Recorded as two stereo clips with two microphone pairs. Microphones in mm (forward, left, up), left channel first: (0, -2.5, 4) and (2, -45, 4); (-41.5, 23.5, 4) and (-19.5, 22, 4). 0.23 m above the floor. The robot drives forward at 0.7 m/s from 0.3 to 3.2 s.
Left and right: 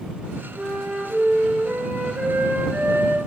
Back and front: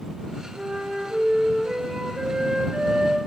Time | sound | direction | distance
0.6 | a flute | 30° right | 3 m